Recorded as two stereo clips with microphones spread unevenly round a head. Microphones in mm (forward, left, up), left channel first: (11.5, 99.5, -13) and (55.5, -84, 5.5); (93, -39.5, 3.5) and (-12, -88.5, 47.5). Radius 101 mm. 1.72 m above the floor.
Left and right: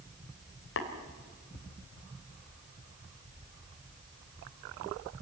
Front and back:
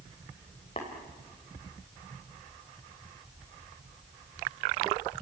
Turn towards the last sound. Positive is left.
turn(degrees=95)